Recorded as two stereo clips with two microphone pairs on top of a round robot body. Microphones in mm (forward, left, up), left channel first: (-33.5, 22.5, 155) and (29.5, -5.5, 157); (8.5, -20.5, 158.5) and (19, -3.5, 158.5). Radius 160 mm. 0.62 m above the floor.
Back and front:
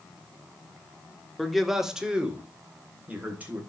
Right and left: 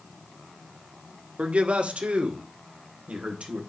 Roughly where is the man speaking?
Left.